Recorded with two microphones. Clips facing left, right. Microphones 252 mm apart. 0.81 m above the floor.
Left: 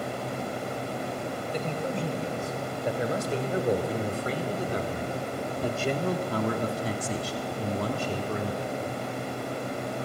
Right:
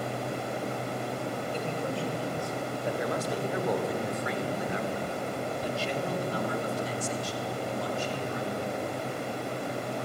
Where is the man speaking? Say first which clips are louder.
Left 4 dB; 20° left (ahead or behind), 4.5 m; by 8.8 s 55° left (ahead or behind), 2.5 m.